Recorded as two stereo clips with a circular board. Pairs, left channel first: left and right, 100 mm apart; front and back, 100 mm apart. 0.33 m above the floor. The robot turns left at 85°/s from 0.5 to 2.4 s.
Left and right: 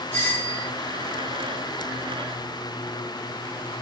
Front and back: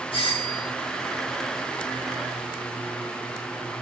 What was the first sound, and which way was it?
A doorbell, 20° left.